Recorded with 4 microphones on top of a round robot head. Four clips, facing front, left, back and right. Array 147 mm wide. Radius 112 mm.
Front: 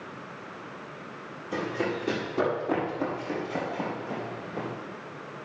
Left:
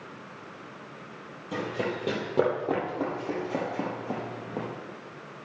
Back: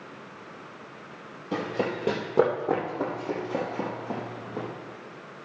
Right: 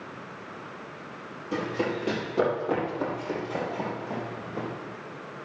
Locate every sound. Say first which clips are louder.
1.5 s running footsteps: right 2 dB, back 1 dB; 165° left, 2.5 m; by 4.7 s 115° left, 2.5 m